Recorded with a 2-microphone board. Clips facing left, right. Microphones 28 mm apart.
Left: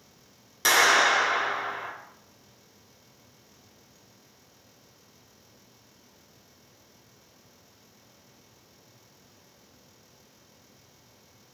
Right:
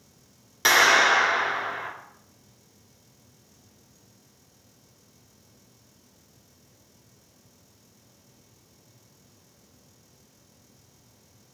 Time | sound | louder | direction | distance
0.7 | a clap | right 2 dB | 20° right (ahead or behind) | 1.0 m